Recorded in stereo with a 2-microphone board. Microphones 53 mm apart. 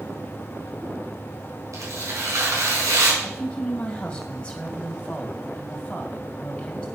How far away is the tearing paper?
About 4.5 m.